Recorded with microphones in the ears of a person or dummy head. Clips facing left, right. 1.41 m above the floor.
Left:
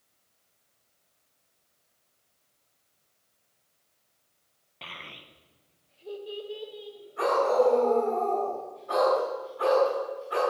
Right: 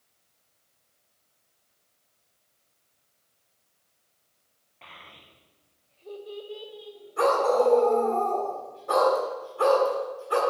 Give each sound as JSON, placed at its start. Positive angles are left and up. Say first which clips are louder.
{"t": 4.8, "sound": "a child speaking", "louder": "left 4 dB", "side_deg": 50, "distance_m": 0.7}
{"t": 7.2, "sound": "a dog barking", "louder": "right 1 dB", "side_deg": -70, "distance_m": 3.0}